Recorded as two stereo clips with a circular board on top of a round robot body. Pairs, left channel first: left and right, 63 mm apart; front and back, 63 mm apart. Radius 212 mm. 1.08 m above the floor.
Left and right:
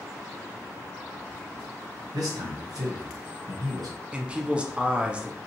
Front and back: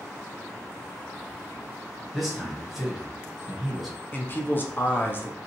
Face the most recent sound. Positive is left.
turn(degrees=-30)